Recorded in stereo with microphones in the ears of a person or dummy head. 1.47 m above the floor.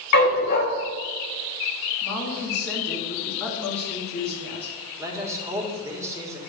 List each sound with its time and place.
0.1 s a dog barking: 45° left (ahead or behind), 1.6 m
2.0 s a woman speaking: 10° left (ahead or behind), 2.5 m
5.0 s a man speaking: 15° right (ahead or behind), 1.4 m